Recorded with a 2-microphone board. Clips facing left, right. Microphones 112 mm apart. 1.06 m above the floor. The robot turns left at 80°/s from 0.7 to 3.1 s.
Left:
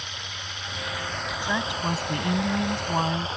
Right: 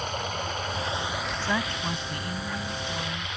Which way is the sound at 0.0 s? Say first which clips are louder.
Right 9 dB; 135° right.